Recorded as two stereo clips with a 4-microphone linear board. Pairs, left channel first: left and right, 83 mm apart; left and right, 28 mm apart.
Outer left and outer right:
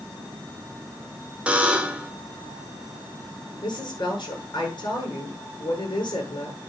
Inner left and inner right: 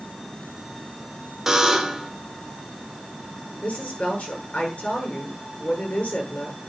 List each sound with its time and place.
1.5 s a buzzer: 15° right (ahead or behind), 1.7 m
3.6 s a woman speaking: 60° left (ahead or behind), 7.5 m